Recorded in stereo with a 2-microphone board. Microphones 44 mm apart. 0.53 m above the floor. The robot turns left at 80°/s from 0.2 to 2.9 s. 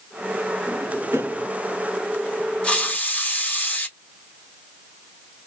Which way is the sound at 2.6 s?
25° left (ahead or behind).